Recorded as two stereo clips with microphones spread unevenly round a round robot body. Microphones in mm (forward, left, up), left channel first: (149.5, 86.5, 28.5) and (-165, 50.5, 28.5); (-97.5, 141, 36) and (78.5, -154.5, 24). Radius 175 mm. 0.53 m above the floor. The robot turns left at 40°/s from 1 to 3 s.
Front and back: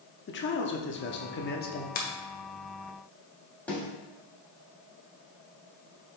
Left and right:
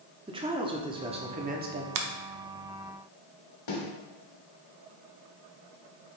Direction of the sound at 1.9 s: 55° right.